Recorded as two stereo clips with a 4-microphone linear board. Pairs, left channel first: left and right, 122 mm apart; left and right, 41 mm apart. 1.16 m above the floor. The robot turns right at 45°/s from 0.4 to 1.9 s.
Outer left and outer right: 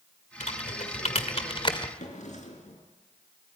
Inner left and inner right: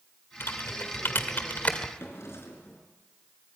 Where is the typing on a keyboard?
70° left (ahead or behind), 1.9 m; by 1.9 s 35° left (ahead or behind), 1.9 m.